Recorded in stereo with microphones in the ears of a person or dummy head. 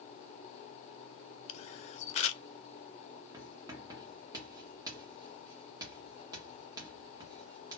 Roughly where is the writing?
Right.